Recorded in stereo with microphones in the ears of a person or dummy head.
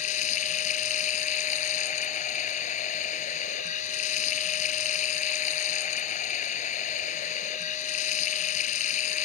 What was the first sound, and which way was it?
Running water, 45° left (ahead or behind).